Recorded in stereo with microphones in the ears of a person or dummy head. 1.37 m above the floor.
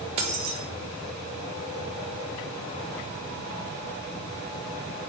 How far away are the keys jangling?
About 0.7 m.